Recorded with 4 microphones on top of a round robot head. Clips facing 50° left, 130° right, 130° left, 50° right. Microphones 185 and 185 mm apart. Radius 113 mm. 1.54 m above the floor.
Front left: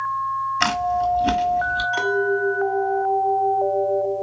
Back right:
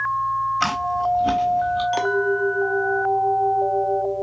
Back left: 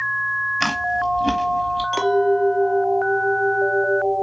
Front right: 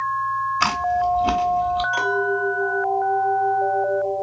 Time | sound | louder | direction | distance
0.6 | chewing | front left 4 dB, front right 2 dB | 60° left | 1.1 m
1.9 | a clink | front left 3 dB, back left 6 dB | straight behind | 1.0 m